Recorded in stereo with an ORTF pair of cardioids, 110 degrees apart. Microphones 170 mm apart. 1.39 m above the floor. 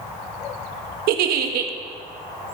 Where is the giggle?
65° right, 1.3 m.